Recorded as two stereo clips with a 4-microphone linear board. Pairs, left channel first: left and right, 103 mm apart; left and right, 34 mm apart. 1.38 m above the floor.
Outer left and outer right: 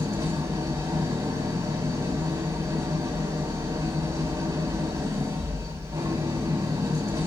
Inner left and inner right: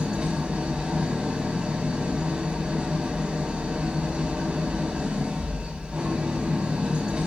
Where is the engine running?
35° right (ahead or behind), 3.5 m.